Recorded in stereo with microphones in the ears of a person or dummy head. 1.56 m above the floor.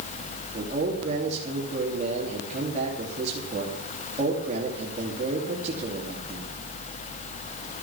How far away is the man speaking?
About 3 m.